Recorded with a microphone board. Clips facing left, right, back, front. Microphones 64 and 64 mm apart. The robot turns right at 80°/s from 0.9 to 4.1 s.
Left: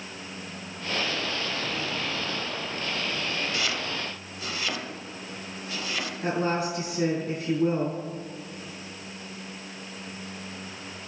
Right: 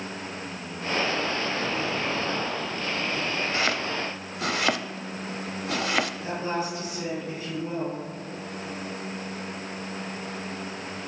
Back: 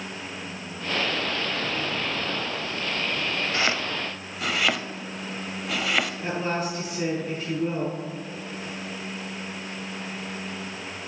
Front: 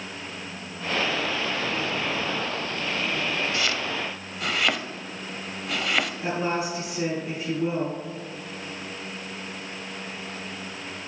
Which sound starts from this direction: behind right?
Chopping, at 3.5 s.